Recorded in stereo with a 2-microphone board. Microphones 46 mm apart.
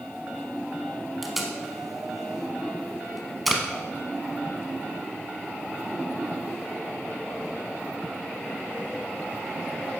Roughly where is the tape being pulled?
Centre.